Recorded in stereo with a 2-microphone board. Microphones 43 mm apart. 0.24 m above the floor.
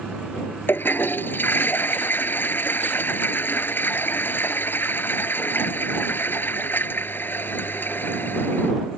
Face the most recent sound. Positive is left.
turn(degrees=55)  # may be behind; listen again after turning